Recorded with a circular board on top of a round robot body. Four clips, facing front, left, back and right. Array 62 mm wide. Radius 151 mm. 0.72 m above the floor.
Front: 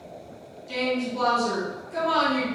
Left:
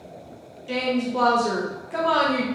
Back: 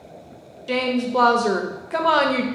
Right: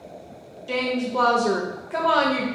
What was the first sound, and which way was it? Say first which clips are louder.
A woman speaking: even, back 5 dB; 175° right.